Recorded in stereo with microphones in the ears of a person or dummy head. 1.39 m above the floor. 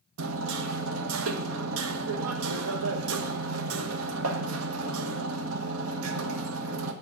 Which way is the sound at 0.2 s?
85° right.